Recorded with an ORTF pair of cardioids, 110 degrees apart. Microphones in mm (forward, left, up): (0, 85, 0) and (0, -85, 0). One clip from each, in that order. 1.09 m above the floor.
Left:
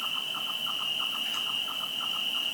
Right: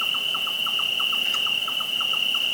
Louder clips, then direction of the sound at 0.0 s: Right 7 dB; 40° right.